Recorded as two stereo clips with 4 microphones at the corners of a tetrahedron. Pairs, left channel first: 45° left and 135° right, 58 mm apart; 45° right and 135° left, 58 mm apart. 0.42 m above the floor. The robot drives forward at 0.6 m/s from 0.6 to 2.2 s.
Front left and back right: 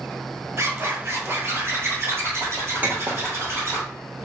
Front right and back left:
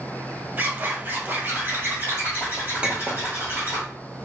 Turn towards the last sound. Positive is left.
turn(degrees=-170)